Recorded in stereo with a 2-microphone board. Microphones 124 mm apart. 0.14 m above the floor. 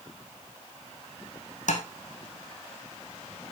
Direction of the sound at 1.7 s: 80° left.